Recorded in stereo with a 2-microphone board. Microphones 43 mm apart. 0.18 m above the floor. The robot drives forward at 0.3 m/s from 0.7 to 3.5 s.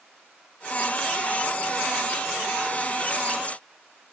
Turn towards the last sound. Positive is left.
No sound to turn to.